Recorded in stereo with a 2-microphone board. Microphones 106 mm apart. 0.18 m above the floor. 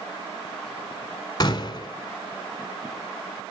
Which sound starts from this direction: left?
A gunshot, at 1.4 s.